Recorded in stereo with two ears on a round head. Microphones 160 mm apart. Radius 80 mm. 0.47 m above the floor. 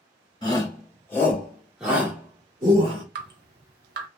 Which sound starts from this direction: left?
A shout, at 0.4 s.